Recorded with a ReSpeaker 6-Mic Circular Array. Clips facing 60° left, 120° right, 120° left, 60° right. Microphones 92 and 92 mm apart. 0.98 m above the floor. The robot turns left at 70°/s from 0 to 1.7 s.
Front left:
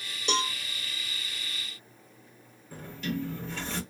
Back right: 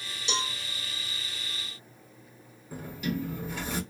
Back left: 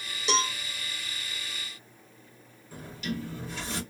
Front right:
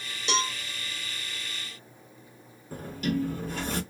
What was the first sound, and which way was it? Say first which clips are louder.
A cowbell: front left 4 dB, back left 1 dB; 35° left.